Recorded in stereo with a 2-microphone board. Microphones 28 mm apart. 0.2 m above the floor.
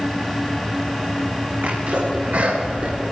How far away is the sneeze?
About 3.5 m.